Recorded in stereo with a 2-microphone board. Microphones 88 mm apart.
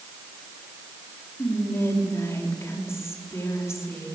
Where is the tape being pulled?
I don't hear tape being pulled.